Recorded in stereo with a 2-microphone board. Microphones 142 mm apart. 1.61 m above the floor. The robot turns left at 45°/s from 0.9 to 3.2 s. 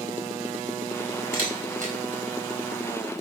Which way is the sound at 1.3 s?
80° right.